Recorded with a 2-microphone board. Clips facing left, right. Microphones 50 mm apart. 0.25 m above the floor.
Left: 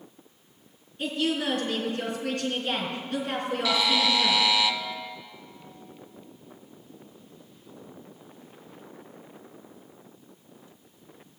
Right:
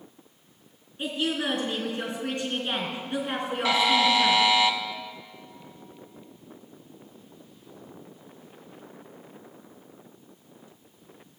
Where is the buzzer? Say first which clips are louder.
Right 4 dB; 35° right (ahead or behind), 0.9 m.